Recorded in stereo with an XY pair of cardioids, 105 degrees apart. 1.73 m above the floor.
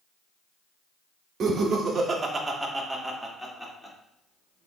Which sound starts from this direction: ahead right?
Laughter, at 1.4 s.